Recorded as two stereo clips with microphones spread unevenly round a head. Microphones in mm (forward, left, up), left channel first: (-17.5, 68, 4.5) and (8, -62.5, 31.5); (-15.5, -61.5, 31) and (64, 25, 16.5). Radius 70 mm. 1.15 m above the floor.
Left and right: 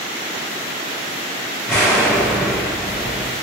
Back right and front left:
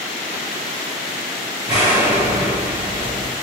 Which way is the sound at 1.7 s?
10° left.